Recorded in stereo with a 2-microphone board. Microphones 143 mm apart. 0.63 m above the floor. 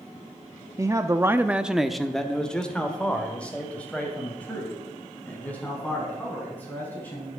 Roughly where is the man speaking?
Right.